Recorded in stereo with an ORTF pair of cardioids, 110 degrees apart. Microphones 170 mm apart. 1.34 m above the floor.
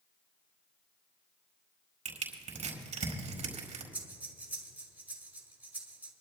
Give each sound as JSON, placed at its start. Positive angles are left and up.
{"t": 2.0, "sound": "crushing", "azimuth_deg": -40, "distance_m": 4.5}
{"t": 3.9, "sound": "breathing", "azimuth_deg": -10, "distance_m": 3.0}